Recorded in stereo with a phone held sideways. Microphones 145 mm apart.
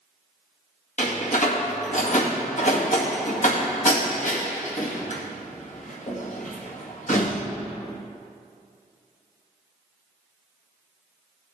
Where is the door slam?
55° left (ahead or behind), 1.9 m.